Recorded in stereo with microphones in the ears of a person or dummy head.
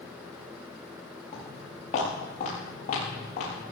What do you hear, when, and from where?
1.3 s footsteps: 40° left (ahead or behind), 8.5 m; by 3.6 s 45° left (ahead or behind), 6.5 m